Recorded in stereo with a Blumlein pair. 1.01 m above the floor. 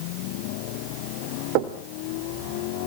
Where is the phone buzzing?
I don't hear a phone buzzing.